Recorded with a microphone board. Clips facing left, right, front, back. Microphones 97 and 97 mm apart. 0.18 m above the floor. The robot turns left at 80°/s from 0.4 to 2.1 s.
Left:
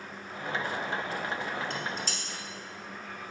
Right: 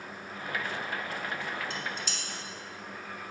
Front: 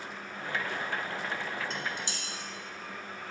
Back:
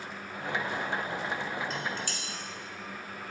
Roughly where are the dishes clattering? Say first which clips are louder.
Left 2 dB, back 2 dB; left.